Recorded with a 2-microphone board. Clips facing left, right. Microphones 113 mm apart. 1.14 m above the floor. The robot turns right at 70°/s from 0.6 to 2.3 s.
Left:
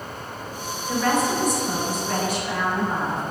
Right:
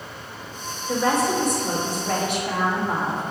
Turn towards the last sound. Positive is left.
turn(degrees=-70)